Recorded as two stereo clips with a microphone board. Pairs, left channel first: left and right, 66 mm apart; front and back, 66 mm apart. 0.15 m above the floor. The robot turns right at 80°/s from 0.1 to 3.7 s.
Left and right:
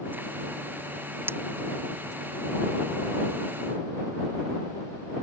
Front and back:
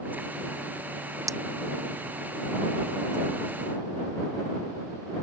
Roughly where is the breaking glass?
Behind right.